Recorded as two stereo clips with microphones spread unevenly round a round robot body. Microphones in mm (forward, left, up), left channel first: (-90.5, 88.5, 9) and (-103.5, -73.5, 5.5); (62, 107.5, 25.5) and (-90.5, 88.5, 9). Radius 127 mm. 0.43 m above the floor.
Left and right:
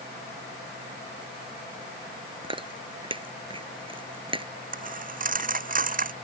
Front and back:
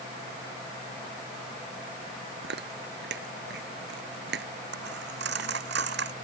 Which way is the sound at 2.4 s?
155° right.